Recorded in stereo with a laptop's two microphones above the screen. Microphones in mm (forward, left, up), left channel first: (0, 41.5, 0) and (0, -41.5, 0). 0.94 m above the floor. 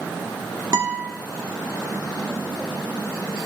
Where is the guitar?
50° right (ahead or behind), 1.3 m.